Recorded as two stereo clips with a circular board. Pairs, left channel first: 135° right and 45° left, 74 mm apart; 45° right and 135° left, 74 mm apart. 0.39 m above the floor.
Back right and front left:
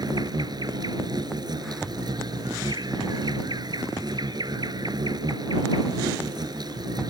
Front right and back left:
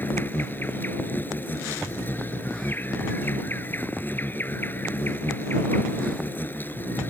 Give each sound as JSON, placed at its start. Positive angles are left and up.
{"t": 0.0, "sound": "an insect", "azimuth_deg": 20}